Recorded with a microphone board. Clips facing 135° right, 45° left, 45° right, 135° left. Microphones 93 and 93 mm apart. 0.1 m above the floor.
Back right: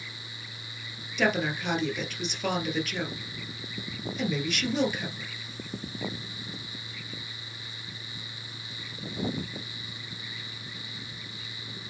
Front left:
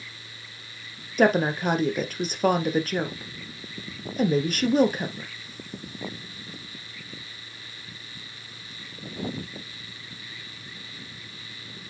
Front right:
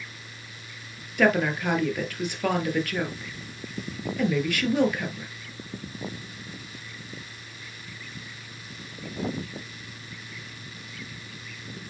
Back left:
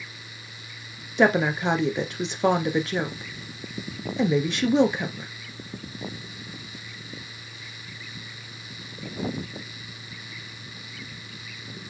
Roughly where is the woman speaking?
Left.